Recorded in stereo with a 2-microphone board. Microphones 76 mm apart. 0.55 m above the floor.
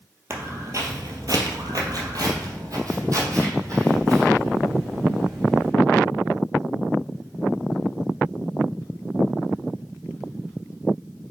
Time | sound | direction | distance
0.3 | footsteps | 35° right (ahead or behind) | 0.9 m